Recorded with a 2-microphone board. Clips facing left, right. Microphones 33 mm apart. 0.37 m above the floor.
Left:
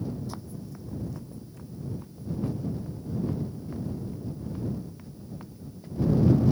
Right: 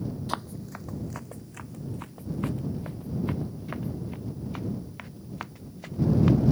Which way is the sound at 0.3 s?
70° right (ahead or behind).